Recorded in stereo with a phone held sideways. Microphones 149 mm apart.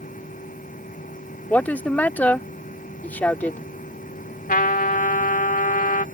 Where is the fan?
60° left (ahead or behind).